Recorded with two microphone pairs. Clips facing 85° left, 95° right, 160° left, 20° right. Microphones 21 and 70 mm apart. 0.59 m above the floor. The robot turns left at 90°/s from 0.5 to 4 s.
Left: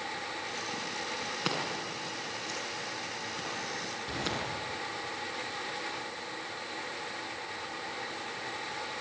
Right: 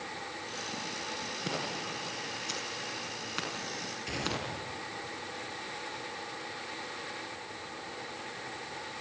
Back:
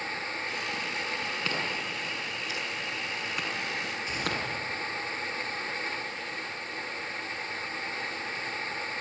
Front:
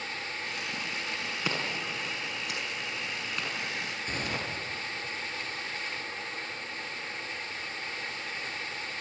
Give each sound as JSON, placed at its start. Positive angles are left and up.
{"t": 1.4, "sound": "scissors", "azimuth_deg": 55, "distance_m": 6.5}
{"t": 4.1, "sound": "a gunshot", "azimuth_deg": -65, "distance_m": 6.0}